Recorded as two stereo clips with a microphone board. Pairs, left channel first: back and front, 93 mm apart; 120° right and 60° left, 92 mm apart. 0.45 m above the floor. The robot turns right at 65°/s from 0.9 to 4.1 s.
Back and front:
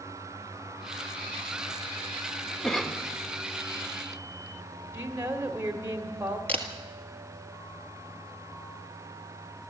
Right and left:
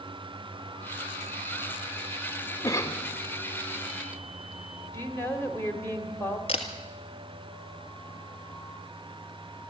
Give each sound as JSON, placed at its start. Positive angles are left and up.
{"t": 2.6, "sound": "a cough", "azimuth_deg": -100, "distance_m": 1.3}
{"t": 4.9, "sound": "a woman speaking", "azimuth_deg": -60, "distance_m": 1.7}
{"t": 6.5, "sound": "a camera shutter", "azimuth_deg": -105, "distance_m": 1.7}